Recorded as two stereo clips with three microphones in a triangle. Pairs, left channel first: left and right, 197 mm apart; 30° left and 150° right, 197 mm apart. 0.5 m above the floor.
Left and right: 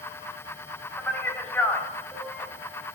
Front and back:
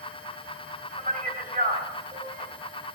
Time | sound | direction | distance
1.0 | a man speaking | 170° left | 2.5 m